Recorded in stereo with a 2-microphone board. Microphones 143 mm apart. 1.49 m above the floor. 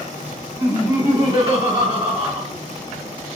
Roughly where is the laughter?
Right.